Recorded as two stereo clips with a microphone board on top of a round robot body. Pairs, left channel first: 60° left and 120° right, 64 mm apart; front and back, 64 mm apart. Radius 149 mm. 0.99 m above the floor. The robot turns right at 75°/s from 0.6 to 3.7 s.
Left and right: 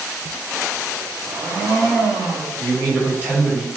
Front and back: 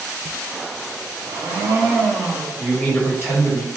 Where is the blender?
170° right, 1.8 m; by 2.5 s 75° right, 1.8 m.